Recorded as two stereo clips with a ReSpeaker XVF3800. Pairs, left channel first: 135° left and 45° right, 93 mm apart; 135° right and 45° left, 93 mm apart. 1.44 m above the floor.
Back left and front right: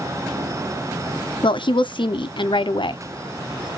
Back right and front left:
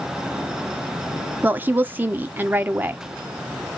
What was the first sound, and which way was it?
A woman speaking, 115° left.